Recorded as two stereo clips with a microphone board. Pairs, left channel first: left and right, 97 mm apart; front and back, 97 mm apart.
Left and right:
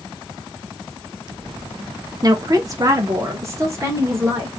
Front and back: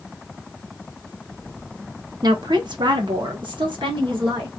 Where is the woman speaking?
140° right, 0.8 m; by 4.5 s 150° right, 2.5 m.